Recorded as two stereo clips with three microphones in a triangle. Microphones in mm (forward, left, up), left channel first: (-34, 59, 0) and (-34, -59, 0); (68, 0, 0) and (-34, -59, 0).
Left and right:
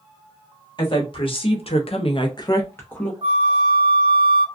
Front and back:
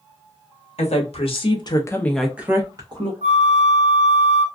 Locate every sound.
0.8 s a woman speaking: 45° left, 1.1 m; by 3.1 s 170° left, 0.9 m
3.2 s a flute: 130° right, 0.5 m